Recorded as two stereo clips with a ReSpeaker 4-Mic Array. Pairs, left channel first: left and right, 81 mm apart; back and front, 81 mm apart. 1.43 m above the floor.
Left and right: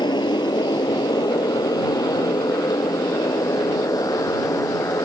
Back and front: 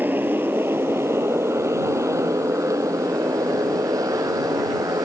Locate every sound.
0.0 s a motorcycle: 70° left; by 5.1 s 45° left